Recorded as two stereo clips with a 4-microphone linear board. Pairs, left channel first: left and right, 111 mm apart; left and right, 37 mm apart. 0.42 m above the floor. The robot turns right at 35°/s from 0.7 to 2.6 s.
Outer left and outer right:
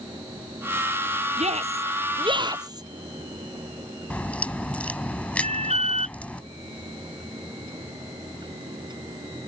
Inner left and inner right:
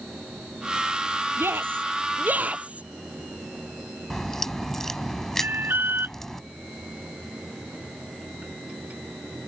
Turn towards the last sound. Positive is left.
turn(degrees=-75)  # may be behind; listen again after turning